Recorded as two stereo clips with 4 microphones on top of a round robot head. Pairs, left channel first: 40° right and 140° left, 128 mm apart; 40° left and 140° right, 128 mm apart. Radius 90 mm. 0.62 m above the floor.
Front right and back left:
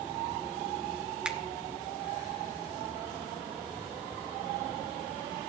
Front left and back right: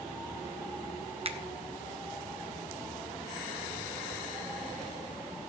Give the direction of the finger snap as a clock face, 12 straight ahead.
5 o'clock.